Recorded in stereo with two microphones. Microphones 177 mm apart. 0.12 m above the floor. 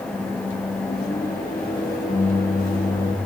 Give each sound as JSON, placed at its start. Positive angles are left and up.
{"t": 0.1, "sound": "a microwave", "side_deg": 55, "distance_m": 3.5}